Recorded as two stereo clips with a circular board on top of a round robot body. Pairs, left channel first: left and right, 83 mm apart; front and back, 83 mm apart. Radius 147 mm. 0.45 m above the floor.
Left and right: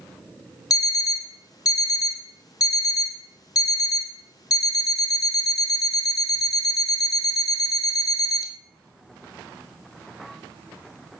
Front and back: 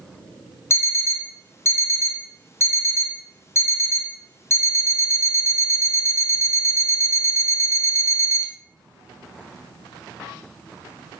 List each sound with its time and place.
0.7 s an alarm clock: 55° left, 0.5 m